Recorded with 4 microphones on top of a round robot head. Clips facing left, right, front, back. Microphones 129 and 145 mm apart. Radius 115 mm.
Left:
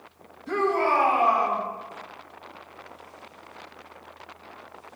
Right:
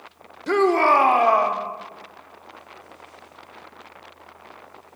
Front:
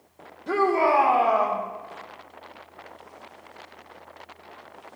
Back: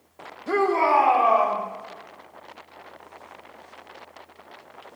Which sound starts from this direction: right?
A shout, at 0.5 s.